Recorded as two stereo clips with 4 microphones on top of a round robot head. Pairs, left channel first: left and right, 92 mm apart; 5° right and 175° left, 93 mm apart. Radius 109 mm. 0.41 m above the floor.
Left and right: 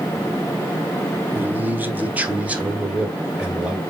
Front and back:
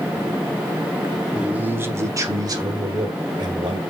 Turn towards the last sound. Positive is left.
turn(degrees=-170)